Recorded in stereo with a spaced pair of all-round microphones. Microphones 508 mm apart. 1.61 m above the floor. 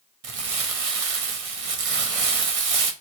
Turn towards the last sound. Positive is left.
turn(degrees=-80)